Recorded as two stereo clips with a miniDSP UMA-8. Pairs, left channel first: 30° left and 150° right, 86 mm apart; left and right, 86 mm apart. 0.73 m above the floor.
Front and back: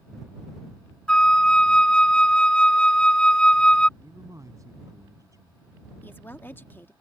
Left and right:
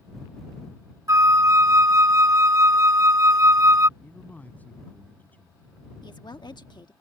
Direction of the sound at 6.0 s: 90° left.